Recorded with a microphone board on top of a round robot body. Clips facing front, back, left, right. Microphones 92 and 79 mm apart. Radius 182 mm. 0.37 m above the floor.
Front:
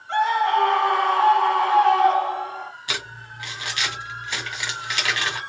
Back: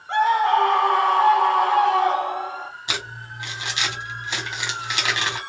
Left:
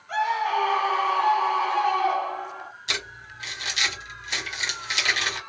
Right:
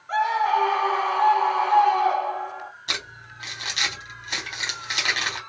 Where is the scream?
145° right, 1.5 m.